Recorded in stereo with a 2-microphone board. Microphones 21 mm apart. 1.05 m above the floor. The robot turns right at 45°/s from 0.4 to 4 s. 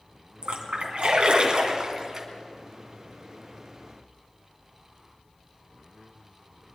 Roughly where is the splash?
Right.